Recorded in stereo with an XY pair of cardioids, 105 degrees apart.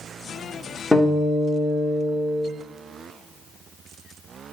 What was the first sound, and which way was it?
A guitar, 10° left.